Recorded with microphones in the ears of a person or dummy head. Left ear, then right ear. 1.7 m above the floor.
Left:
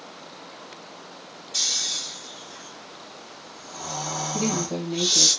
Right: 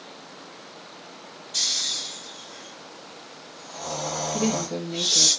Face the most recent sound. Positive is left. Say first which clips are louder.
# even
turn(degrees=5)  # may be behind; listen again after turning